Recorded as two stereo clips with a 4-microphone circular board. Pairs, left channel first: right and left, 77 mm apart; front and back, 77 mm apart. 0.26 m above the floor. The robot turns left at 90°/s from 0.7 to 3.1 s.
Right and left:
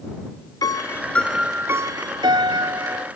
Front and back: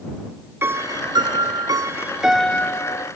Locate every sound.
0.6 s a piano: 120° right; by 3.1 s 20° left